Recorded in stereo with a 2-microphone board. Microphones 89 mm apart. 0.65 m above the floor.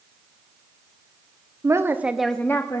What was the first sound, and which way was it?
A woman speaking, 35° right (ahead or behind).